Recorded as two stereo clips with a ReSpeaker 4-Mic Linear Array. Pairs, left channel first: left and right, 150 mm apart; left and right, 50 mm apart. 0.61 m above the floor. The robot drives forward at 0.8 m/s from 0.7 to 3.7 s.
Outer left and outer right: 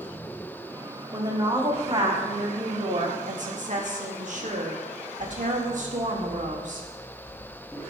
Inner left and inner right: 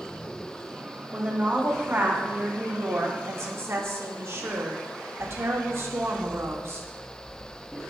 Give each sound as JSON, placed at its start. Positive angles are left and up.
{"t": 1.1, "sound": "a woman speaking", "side_deg": -30, "distance_m": 2.5}